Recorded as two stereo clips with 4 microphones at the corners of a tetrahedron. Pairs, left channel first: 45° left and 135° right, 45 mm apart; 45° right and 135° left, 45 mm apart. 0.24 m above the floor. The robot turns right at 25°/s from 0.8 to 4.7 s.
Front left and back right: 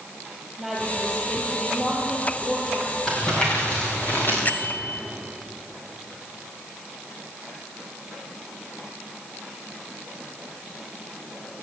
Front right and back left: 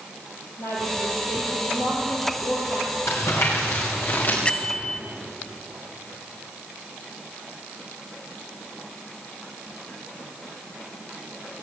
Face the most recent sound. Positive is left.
turn(degrees=15)